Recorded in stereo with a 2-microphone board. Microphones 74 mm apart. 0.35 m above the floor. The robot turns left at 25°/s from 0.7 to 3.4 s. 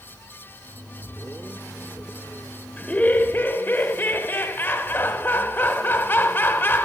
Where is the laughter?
15° left (ahead or behind), 0.9 m; by 6.8 s 25° left (ahead or behind), 0.9 m.